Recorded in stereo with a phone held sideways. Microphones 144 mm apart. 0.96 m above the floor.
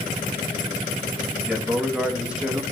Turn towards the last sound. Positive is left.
turn(degrees=-5)  # may be behind; listen again after turning